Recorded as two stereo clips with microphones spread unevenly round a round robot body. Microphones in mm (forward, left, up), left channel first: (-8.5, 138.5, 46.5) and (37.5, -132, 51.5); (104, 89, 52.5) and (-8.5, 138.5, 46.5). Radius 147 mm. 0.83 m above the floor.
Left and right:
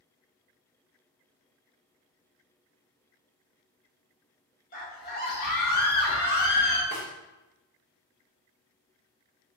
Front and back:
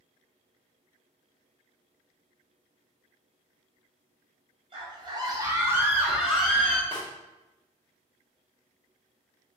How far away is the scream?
About 1.3 m.